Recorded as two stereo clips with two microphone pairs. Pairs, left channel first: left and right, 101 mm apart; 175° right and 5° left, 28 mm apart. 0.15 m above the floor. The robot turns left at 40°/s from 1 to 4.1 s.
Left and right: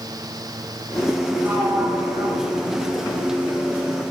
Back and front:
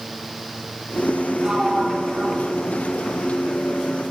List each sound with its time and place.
1.4 s a sliding door: 35° right, 1.6 m; by 2.9 s 95° right, 1.6 m